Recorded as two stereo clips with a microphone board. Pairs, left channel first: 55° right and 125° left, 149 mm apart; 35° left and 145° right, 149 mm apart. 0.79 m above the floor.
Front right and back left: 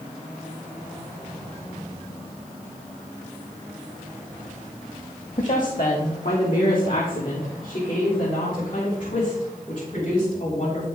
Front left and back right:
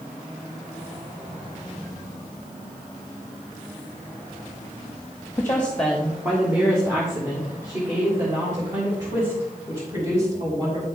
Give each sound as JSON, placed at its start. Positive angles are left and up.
{"t": 5.4, "sound": "a woman speaking", "azimuth_deg": -35, "distance_m": 1.2}